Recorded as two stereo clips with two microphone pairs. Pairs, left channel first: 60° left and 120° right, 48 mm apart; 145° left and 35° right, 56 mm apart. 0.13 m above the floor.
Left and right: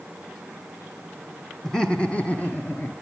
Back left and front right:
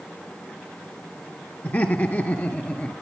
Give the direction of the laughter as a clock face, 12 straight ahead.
8 o'clock.